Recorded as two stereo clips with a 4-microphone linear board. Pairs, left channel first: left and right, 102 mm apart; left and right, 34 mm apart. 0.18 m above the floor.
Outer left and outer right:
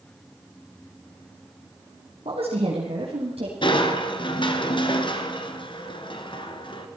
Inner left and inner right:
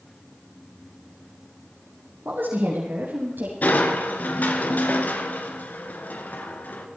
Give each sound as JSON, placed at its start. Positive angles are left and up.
{"t": 2.2, "sound": "a woman speaking", "side_deg": -70, "distance_m": 3.5}
{"t": 3.6, "sound": "crushing", "side_deg": 50, "distance_m": 1.8}